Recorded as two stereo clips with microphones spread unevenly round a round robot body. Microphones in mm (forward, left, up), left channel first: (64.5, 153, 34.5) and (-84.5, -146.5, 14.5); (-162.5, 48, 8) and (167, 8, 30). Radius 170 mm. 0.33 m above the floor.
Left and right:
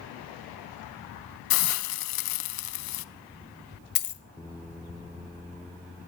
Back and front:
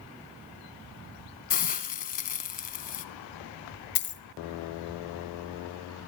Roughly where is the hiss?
Left.